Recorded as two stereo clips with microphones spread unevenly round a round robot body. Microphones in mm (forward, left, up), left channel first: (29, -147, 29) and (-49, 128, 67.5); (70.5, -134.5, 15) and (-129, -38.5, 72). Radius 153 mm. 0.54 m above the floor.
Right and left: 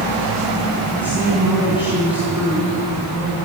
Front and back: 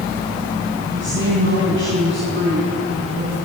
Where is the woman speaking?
170° right, 5 m.